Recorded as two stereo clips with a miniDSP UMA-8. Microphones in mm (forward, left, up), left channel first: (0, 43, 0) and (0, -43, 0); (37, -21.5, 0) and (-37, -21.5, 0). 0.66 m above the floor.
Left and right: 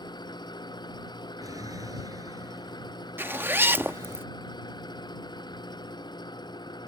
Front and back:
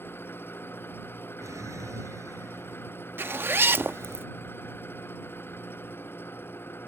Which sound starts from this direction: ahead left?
An engine running, at 0.0 s.